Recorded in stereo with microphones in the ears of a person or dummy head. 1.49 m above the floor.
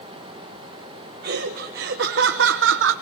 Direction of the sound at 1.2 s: 60° right (ahead or behind).